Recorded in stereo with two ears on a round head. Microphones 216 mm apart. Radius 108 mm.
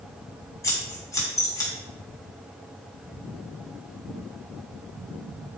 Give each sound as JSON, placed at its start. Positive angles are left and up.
{"t": 0.6, "sound": "scissors", "side_deg": 15, "distance_m": 3.0}